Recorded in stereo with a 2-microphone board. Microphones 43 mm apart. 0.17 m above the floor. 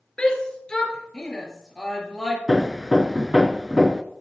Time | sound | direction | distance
0.2 | a shout | 25° left (ahead or behind) | 3.5 m
2.5 | hammering | 10° right (ahead or behind) | 0.7 m